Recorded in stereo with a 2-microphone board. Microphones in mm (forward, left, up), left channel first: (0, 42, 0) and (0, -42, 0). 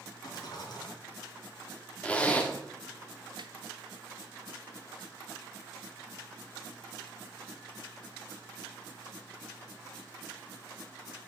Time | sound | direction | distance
0.2 | a rattle | 50° left (ahead or behind) | 3 m
2.0 | a zipper | 15° left (ahead or behind) | 1.1 m
3.4 | a snare drum | 65° right (ahead or behind) | 0.8 m